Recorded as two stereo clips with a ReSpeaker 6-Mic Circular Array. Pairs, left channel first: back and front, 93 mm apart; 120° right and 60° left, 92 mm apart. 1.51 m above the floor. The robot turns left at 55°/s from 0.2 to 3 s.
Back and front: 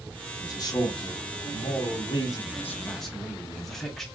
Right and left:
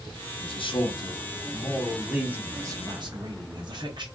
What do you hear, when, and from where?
0.4 s a man speaking: 125° right, 0.8 m; by 4.0 s 95° left, 0.8 m